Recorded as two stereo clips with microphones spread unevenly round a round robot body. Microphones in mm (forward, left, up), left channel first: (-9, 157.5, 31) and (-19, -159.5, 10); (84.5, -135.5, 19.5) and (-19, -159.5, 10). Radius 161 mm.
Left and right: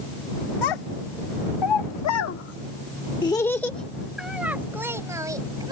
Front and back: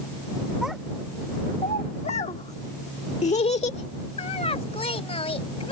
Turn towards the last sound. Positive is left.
turn(degrees=-15)